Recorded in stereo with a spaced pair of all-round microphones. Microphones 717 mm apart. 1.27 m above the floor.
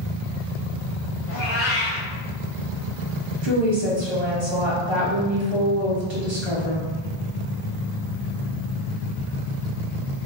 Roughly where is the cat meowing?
Centre.